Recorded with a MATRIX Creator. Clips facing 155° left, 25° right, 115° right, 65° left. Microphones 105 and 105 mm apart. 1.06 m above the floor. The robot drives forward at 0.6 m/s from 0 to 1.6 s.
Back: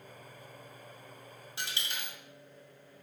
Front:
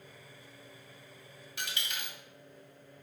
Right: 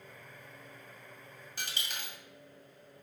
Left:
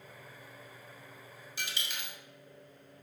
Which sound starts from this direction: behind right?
A dropped coin, at 1.6 s.